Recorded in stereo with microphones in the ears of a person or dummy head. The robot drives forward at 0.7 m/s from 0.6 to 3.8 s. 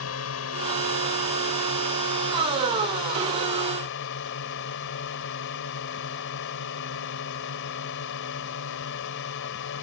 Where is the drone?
85° left; by 9.8 s 70° left (ahead or behind).